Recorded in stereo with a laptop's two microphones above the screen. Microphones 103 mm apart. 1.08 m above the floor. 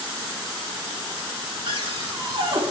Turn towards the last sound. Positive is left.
turn(degrees=-55)  # may be behind; listen again after turning